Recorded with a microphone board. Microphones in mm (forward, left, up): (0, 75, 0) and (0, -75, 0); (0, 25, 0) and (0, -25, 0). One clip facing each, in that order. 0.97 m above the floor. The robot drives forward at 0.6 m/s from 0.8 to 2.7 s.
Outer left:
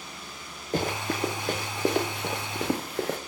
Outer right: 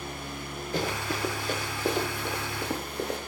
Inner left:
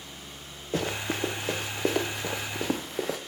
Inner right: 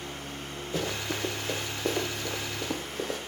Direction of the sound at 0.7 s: 45° left (ahead or behind).